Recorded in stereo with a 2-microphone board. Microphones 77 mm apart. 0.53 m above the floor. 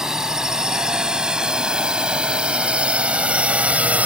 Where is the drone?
10° right (ahead or behind); by 4.1 s 20° right (ahead or behind).